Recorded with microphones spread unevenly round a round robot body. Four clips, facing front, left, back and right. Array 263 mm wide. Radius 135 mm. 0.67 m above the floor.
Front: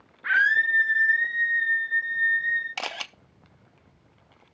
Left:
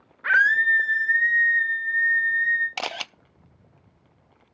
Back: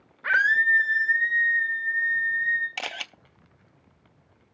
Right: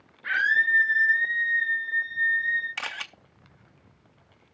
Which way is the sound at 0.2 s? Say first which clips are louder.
Left 5 dB, back 1 dB; 135° left.